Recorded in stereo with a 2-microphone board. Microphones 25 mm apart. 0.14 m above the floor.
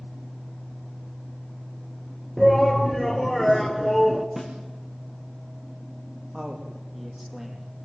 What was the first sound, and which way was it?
A shout, 5° left (ahead or behind).